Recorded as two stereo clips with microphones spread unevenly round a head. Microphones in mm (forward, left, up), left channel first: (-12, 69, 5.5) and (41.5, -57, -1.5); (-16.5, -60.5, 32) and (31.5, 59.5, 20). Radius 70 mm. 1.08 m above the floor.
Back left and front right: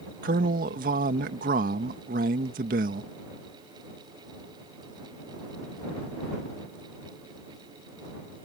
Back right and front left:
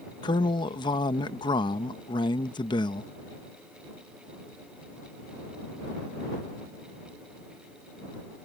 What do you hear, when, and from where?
0.2 s a man speaking: 55° right